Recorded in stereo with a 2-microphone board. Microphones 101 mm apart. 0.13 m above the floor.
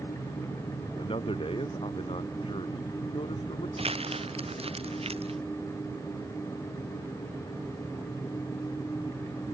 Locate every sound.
1.0 s a man speaking: 65° left (ahead or behind)
3.8 s crumpling: 80° right